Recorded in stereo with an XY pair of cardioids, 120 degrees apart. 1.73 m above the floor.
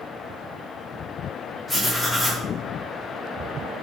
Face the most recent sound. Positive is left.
turn(degrees=10)